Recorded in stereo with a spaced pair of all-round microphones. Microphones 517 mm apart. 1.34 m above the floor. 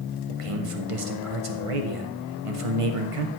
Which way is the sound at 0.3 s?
80° right.